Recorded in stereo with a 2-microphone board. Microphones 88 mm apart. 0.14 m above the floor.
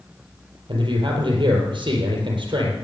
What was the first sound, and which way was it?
A man speaking, 60° right (ahead or behind).